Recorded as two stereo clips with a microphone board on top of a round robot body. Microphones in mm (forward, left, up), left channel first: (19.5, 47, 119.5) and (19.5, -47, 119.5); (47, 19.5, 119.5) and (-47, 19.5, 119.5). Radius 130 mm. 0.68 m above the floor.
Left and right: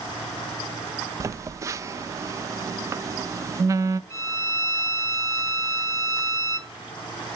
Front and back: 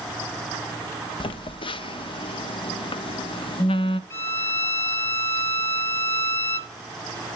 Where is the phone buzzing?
30° right, 0.7 m.